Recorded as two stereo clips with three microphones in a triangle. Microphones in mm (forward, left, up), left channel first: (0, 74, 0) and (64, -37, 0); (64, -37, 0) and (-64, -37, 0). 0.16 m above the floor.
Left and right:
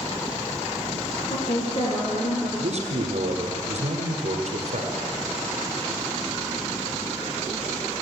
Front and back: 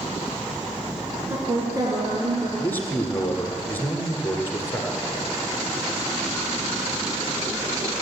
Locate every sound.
1.3 s a woman speaking: 115° left, 1.6 m; by 2.5 s 135° left, 3 m
2.6 s a man speaking: 70° right, 2.0 m